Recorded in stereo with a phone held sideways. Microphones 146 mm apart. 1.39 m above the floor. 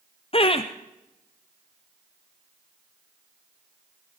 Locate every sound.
0.3 s laughter: 40° left (ahead or behind), 0.5 m